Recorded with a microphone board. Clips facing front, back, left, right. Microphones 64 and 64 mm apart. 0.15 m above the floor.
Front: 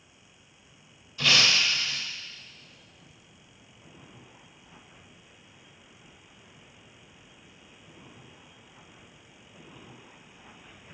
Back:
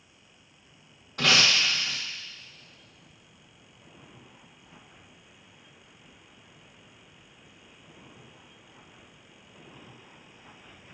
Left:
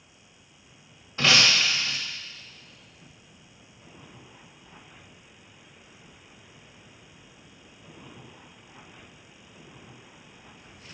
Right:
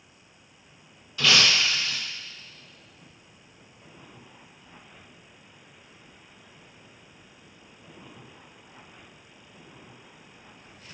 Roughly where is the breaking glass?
Behind left.